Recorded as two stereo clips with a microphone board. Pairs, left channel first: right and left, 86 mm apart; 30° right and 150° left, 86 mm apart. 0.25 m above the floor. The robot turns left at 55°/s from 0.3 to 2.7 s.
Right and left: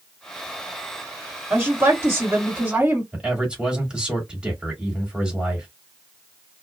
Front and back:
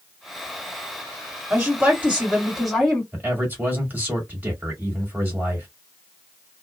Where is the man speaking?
145° left, 1.6 m.